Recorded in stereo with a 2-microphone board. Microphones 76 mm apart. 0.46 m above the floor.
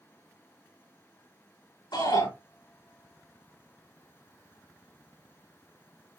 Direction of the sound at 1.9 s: 75° left (ahead or behind).